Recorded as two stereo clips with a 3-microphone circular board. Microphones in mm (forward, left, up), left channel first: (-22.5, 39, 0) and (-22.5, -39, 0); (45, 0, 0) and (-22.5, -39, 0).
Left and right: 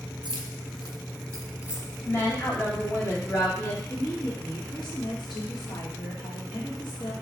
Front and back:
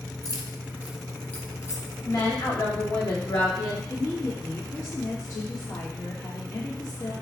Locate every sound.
0.2 s keys jangling: 110° right, 0.7 m; by 1.9 s 5° right, 0.7 m
2.0 s a woman speaking: 40° left, 1.2 m
3.9 s a woman speaking: 75° left, 1.5 m